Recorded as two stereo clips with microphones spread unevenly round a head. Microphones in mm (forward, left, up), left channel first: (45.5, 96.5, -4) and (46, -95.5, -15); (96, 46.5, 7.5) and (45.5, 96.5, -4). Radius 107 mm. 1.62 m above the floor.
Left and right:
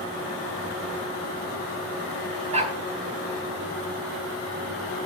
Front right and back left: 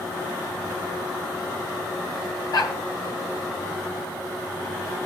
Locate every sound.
2.5 s a dog barking: 35° right, 4 m